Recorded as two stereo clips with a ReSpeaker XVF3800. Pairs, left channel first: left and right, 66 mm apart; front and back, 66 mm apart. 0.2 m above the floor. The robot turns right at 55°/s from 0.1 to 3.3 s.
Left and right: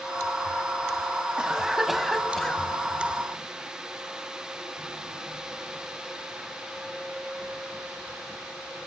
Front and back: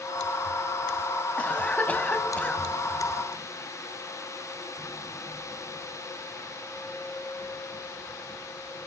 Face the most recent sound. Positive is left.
turn(degrees=70)